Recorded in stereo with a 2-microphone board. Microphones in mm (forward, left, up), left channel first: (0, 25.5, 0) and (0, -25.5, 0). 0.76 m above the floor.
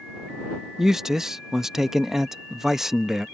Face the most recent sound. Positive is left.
turn(degrees=-10)  # may be behind; listen again after turning